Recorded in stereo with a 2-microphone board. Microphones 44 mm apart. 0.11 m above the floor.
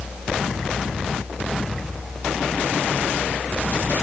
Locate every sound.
Only background noise.